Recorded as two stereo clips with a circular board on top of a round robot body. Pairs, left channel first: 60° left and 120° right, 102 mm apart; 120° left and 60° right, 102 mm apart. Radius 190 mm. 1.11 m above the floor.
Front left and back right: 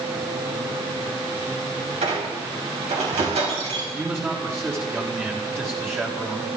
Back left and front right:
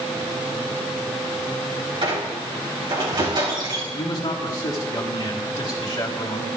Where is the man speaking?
170° left, 3 m.